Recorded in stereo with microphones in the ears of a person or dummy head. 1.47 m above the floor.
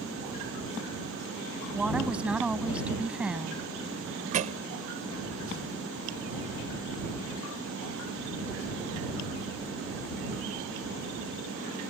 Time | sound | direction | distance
1.7 | a woman speaking | 10° right (ahead or behind) | ?
4.3 | a thud | 40° right (ahead or behind) | ?